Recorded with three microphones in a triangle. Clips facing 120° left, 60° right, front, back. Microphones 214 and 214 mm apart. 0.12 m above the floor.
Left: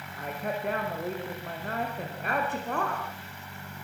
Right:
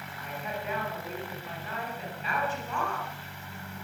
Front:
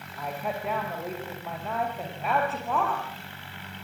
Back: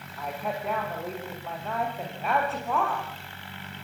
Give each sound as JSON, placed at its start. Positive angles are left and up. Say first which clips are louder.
{"t": 0.2, "sound": "a woman speaking", "louder": "left 5 dB, even", "azimuth_deg": 90, "distance_m": 9.0}